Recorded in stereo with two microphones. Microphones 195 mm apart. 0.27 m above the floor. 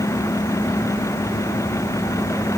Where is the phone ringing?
I don't hear a phone ringing.